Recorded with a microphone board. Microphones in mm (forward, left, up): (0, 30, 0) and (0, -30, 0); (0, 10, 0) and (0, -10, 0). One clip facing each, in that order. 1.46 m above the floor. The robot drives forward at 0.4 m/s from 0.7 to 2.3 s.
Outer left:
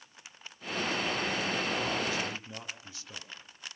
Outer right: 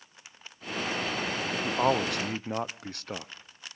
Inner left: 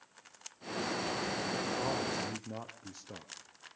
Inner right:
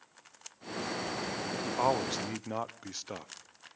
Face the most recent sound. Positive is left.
turn(degrees=-60)  # may be behind; listen again after turning